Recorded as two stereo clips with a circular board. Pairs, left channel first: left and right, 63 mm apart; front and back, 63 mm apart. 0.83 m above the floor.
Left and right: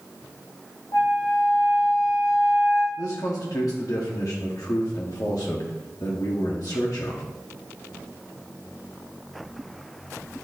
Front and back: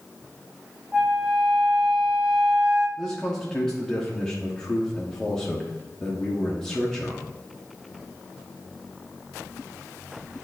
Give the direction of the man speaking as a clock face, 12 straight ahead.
9 o'clock.